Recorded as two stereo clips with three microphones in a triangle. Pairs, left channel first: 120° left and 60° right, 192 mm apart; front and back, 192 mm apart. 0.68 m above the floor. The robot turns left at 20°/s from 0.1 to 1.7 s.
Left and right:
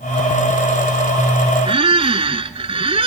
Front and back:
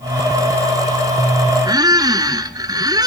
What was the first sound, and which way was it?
A squeak, 110° right.